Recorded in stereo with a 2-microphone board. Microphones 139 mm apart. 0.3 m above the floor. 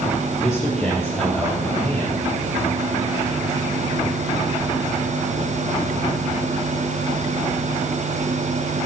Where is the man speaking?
Centre (ahead or behind), 6 m; by 2.2 s 5° left (ahead or behind), 8 m.